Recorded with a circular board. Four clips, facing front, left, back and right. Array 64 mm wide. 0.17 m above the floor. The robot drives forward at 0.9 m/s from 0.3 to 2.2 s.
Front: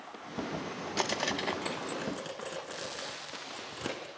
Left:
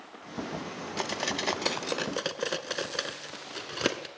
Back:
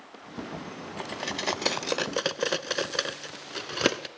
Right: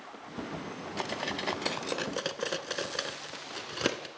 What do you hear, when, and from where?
1.0 s cutlery clinking: 20° left, 0.6 m; by 4.1 s 175° left, 1.0 m